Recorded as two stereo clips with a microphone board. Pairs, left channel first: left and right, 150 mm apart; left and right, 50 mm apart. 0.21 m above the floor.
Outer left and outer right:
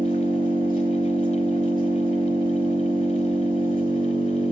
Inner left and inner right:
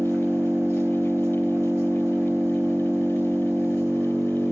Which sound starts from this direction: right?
An engine running, at 0.0 s.